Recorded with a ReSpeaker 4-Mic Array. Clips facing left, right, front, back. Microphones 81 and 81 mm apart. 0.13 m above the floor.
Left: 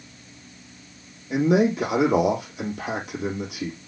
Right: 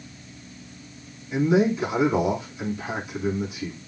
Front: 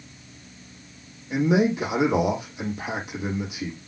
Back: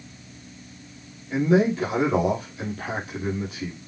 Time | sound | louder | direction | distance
1.3 | a man speaking | left 1 dB, back 1 dB | 75° left | 5.5 m